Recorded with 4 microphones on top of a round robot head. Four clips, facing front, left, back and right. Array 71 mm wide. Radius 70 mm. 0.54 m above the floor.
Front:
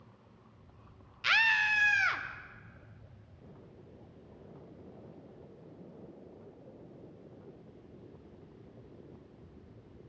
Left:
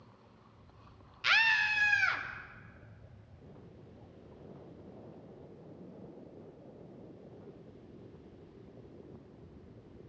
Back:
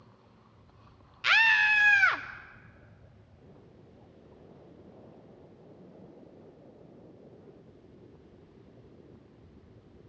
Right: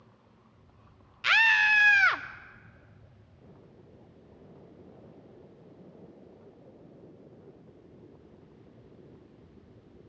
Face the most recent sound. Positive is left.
turn(degrees=-115)